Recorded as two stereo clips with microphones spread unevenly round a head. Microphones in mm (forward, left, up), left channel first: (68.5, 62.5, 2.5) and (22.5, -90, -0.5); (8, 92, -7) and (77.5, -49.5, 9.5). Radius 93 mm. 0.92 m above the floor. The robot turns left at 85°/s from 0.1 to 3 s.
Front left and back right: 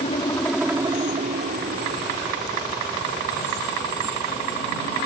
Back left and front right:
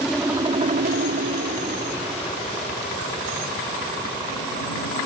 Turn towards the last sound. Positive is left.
turn(degrees=140)